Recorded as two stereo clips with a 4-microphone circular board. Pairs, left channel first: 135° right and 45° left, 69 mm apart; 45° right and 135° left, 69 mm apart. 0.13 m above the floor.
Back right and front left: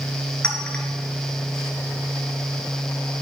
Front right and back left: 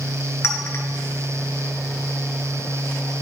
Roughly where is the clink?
Ahead right.